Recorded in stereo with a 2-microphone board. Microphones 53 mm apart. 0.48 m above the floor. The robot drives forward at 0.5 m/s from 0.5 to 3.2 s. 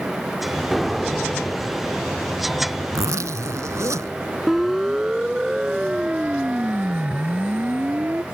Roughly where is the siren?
Centre.